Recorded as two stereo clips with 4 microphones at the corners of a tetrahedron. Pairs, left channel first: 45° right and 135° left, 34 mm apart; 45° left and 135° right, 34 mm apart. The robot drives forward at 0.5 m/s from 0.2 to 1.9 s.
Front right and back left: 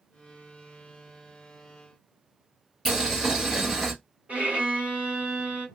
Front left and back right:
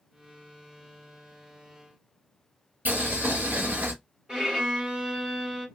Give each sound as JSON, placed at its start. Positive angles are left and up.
{"t": 2.9, "sound": "boiling", "azimuth_deg": -145, "distance_m": 1.5}
{"t": 4.3, "sound": "a violin", "azimuth_deg": 160, "distance_m": 1.7}